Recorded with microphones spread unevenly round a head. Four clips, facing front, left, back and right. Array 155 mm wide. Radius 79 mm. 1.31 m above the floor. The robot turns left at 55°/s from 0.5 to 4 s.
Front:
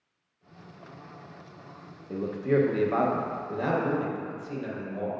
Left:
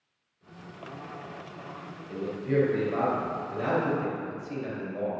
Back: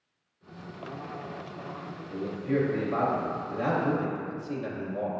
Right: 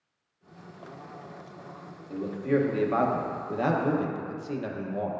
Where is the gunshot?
I don't hear a gunshot.